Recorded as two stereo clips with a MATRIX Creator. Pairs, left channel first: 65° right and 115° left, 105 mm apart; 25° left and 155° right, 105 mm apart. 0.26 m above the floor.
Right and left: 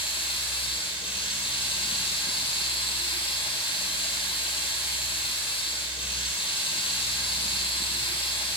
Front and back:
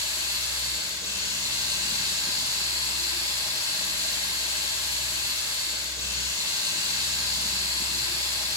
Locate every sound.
0.0 s running water: 100° right, 5.5 m